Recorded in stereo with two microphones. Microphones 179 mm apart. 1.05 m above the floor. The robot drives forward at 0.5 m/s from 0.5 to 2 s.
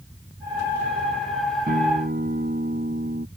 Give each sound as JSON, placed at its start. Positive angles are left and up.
{"t": 1.7, "sound": "a guitar", "side_deg": -65}